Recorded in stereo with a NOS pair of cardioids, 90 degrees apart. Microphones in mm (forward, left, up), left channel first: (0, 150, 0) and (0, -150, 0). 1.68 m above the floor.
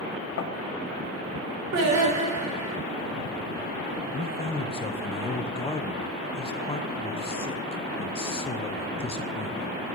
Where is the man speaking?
20° left, 1.3 m.